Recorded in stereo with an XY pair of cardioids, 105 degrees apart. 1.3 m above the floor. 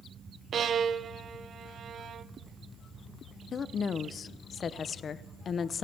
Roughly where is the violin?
Ahead right.